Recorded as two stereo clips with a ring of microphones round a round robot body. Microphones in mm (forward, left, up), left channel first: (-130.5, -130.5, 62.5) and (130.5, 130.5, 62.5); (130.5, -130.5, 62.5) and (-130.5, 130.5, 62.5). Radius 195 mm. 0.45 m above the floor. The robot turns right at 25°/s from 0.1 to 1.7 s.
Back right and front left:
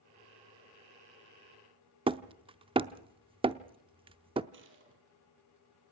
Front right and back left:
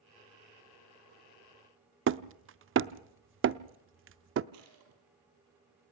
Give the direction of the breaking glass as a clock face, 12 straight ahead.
No breaking glass in this recording.